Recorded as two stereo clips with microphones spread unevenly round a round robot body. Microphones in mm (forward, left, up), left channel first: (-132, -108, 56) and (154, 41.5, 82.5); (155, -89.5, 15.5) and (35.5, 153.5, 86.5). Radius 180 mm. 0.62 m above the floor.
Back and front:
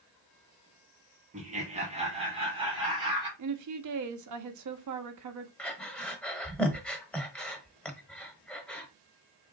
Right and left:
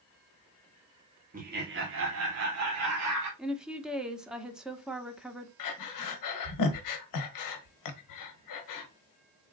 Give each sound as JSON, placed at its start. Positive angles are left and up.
{"t": 1.3, "sound": "laughter", "azimuth_deg": 65, "distance_m": 1.3}
{"t": 3.4, "sound": "a woman speaking", "azimuth_deg": 15, "distance_m": 0.9}
{"t": 5.6, "sound": "breathing", "azimuth_deg": -65, "distance_m": 0.8}